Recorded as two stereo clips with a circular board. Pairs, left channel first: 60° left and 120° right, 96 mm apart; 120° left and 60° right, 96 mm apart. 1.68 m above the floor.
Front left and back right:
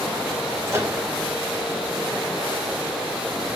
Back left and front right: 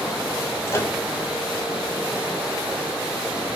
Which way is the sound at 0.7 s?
Straight behind.